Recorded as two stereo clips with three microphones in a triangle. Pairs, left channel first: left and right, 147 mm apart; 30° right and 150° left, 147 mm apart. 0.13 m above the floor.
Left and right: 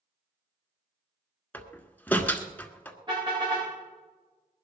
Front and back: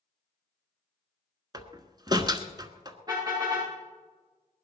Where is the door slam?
155° left, 1.3 m.